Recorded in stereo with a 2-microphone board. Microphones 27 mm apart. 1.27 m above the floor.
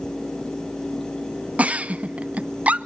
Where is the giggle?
55° right (ahead or behind), 0.5 m.